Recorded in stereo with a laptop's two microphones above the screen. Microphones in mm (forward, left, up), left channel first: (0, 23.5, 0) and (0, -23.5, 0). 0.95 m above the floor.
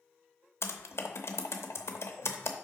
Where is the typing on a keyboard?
65° left (ahead or behind), 0.7 m.